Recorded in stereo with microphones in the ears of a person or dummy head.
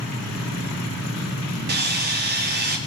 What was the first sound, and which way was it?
Sawing, 50° right (ahead or behind).